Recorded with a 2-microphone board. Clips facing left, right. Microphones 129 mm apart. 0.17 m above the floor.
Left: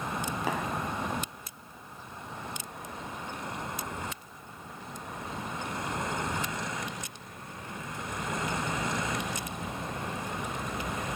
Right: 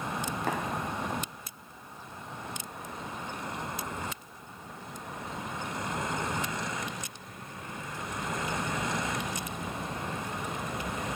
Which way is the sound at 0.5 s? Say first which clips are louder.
Even; 5° left (ahead or behind).